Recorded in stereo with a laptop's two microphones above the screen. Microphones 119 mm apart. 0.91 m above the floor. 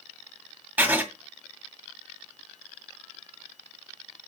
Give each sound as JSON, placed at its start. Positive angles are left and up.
{"t": 0.8, "sound": "writing", "side_deg": -15, "distance_m": 1.9}